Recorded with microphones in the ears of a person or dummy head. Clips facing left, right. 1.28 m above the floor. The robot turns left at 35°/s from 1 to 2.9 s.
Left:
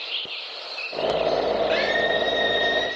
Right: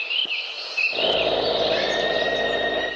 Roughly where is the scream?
Behind left.